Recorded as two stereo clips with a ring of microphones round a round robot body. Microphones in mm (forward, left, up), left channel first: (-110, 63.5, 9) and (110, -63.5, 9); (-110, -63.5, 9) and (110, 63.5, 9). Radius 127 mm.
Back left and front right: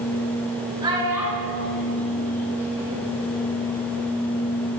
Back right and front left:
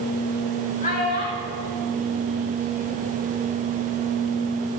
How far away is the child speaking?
About 1.3 m.